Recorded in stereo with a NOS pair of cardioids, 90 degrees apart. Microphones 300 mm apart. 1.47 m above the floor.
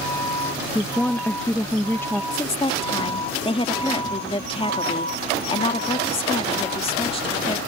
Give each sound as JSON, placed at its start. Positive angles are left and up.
{"t": 0.8, "sound": "a woman speaking", "azimuth_deg": 5}
{"t": 2.3, "sound": "a woman speaking", "azimuth_deg": 20}